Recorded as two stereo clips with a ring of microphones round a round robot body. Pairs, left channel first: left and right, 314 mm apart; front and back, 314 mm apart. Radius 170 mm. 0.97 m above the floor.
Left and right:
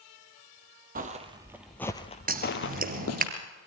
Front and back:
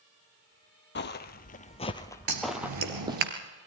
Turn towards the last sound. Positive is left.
turn(degrees=-155)